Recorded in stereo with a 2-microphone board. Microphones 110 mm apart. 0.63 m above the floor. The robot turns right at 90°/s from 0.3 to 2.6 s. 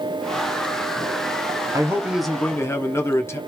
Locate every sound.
1.7 s a man speaking: 45° right, 0.7 m; by 3.4 s 35° left, 0.7 m